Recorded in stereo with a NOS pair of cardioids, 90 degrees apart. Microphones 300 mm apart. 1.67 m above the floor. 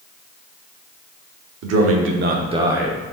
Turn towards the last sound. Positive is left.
turn(degrees=5)